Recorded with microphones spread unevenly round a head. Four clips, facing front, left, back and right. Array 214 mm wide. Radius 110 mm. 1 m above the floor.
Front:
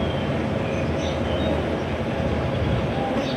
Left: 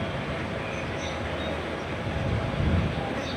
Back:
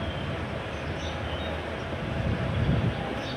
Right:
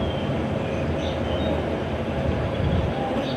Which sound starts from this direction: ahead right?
An insect, at 0.0 s.